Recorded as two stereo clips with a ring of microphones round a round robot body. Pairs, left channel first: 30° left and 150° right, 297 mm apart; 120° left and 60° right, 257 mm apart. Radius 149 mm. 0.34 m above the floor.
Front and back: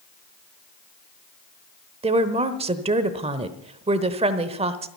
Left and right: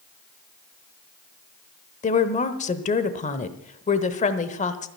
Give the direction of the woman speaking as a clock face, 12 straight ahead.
7 o'clock.